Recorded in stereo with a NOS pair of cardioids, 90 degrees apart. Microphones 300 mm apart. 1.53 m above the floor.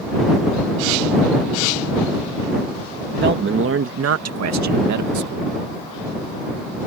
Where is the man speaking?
35° right; by 5.5 s 75° right.